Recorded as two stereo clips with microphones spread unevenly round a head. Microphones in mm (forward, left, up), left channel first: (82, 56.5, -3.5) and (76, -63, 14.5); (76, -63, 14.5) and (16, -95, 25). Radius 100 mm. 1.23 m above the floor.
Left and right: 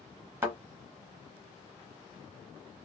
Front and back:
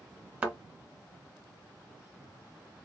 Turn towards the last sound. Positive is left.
turn(degrees=-120)